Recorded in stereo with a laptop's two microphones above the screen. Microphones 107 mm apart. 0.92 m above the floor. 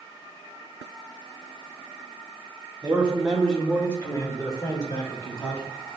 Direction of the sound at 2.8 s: 20° right (ahead or behind).